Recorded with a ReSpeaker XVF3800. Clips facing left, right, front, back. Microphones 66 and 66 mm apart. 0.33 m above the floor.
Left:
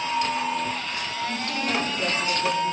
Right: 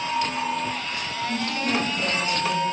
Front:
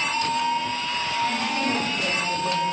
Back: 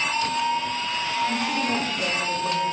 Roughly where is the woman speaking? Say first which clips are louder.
Right 3 dB, even; behind left.